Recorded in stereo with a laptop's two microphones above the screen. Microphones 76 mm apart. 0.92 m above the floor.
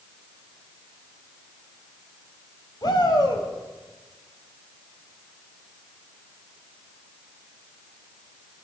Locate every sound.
2.8 s a shout: 65° left (ahead or behind), 4.5 m